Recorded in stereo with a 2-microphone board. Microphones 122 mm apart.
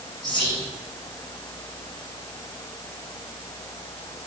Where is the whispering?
40° left (ahead or behind), 1.6 m.